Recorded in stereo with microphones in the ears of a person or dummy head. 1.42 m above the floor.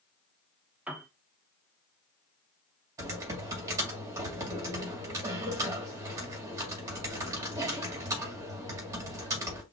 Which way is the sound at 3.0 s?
15° right (ahead or behind).